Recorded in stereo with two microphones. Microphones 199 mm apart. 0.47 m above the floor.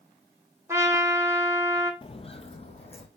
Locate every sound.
0.7 s a trumpet: 15° right (ahead or behind), 1.3 m
2.0 s footsteps: 30° left (ahead or behind), 0.6 m; by 3.1 s 35° left (ahead or behind), 1.4 m